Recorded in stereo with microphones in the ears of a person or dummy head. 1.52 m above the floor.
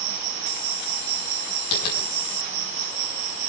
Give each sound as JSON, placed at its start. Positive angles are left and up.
{"t": 0.0, "sound": "an insect", "side_deg": -45, "distance_m": 2.0}
{"t": 1.7, "sound": "tapping", "side_deg": 75, "distance_m": 6.0}